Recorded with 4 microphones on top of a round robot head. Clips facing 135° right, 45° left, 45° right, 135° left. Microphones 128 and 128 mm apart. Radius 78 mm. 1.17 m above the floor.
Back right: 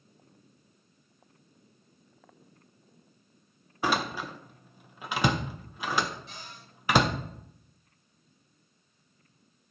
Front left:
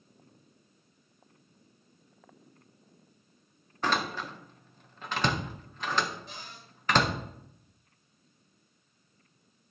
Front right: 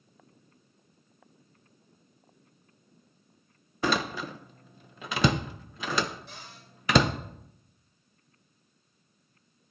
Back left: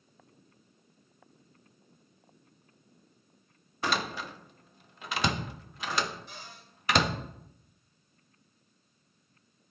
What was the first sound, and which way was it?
A door slam, 50° right.